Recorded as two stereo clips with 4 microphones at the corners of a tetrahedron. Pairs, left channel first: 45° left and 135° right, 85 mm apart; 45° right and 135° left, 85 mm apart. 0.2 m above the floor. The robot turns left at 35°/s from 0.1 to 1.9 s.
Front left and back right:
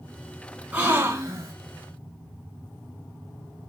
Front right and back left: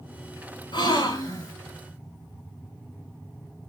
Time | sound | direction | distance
0.7 | a gasp | 65° right | 1.2 m